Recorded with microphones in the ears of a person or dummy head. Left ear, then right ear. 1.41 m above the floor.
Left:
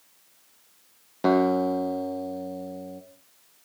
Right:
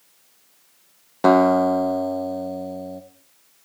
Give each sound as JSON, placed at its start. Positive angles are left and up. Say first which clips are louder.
{"t": 1.2, "sound": "a guitar", "louder": "right 7 dB", "side_deg": -35, "distance_m": 1.1}